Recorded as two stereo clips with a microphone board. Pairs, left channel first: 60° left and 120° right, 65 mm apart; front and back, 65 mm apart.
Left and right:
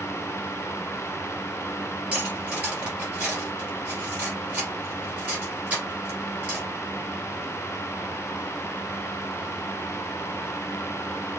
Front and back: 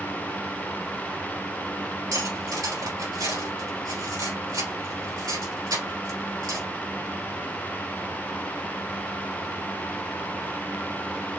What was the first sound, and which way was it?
Cutlery clinking, 170° left.